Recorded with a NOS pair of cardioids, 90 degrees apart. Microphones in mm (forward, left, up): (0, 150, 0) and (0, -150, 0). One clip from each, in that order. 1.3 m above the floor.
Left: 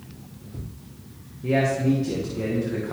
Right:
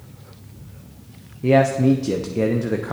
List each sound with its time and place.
1.4 s a man speaking: 50° right, 0.8 m